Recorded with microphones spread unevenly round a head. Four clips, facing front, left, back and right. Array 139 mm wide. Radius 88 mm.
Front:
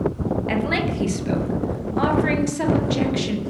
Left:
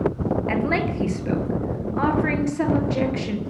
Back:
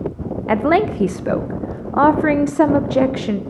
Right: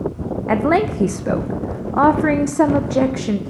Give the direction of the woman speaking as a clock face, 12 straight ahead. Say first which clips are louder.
Right 12 dB, back 12 dB; 5 o'clock.